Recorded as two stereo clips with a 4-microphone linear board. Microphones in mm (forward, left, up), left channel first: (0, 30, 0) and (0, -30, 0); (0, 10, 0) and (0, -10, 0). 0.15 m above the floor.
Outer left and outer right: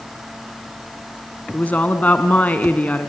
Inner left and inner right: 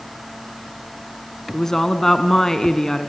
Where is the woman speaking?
25° left (ahead or behind), 1.1 m.